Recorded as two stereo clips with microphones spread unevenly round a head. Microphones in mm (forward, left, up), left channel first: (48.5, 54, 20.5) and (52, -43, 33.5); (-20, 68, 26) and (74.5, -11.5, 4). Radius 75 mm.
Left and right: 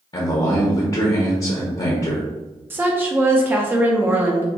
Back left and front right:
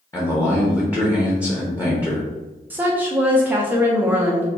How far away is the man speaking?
About 1.0 m.